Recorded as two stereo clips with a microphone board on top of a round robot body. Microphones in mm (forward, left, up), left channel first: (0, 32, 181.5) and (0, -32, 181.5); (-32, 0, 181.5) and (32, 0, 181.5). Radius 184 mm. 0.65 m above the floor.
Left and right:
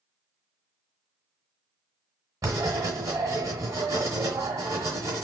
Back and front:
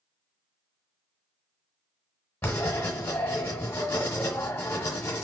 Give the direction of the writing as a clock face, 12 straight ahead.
4 o'clock.